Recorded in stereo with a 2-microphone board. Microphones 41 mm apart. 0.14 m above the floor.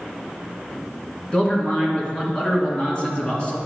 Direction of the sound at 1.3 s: 25° left (ahead or behind).